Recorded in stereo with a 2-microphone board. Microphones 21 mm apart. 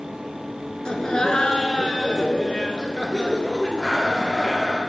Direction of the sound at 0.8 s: 40° left (ahead or behind).